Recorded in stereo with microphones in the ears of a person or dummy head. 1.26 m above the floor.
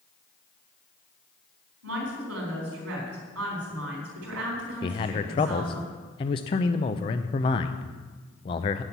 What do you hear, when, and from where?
1.8 s a woman speaking: 90° right, 4 m
4.8 s a man speaking: 35° left (ahead or behind), 0.6 m